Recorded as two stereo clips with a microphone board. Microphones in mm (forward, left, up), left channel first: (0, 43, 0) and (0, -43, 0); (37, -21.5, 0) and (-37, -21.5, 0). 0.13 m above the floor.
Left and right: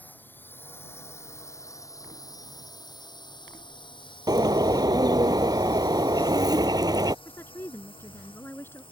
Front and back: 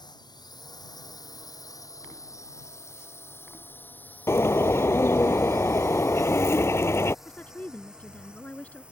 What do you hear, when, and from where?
0.0 s a drone: 20° left; by 8.9 s 105° left
4.3 s a bird: 55° right
7.2 s a woman speaking: 50° left